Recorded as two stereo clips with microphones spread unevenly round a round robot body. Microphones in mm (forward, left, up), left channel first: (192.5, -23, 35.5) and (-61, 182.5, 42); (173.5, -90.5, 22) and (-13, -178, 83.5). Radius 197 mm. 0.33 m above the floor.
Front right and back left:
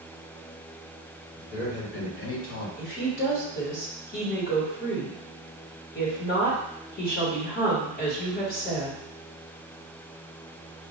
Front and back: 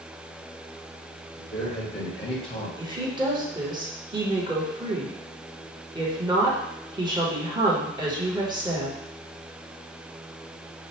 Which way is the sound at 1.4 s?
20° left.